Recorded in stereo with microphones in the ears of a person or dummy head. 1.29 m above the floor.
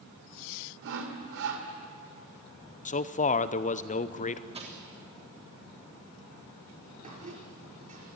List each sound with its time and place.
0.8 s sawing: 70° right (ahead or behind), 2.5 m
2.9 s a man speaking: 25° left (ahead or behind), 0.6 m
4.5 s crushing: 40° right (ahead or behind), 3 m
7.0 s a squeak: 50° right (ahead or behind), 5 m